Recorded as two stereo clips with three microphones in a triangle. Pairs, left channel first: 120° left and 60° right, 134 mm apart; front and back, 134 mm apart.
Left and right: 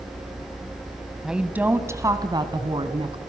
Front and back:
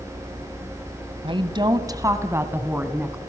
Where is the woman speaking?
145° right, 1.9 m; by 3.2 s 100° right, 3 m.